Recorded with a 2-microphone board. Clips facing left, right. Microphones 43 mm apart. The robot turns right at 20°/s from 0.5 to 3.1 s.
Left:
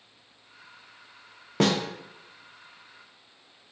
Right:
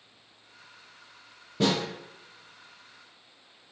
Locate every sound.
1.6 s a snare drum: 80° left, 0.5 m